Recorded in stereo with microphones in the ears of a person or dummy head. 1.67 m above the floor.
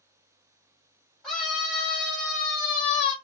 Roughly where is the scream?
Centre.